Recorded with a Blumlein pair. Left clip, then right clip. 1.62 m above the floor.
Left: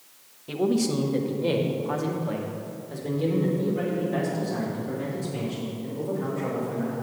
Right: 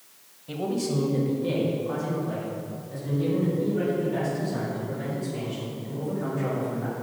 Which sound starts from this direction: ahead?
A man speaking, at 0.5 s.